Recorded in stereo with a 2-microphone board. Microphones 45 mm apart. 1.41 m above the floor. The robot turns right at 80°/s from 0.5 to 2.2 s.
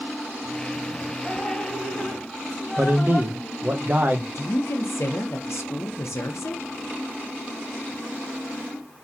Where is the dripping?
40° right, 1.4 m; by 3.8 s 35° left, 1.4 m.